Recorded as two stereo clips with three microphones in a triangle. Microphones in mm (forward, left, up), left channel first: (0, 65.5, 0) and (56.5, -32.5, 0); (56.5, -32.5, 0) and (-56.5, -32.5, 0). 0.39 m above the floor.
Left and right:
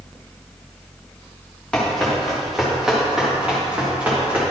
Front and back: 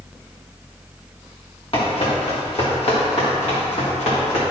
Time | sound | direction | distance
1.7 | running footsteps | 35° left | 3 m